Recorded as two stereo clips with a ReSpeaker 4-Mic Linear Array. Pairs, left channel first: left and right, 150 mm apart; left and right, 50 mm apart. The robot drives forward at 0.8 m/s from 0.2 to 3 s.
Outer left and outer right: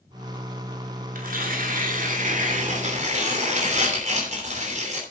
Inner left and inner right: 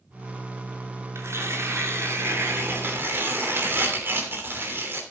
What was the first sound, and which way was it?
Tearing paper, 70° right (ahead or behind).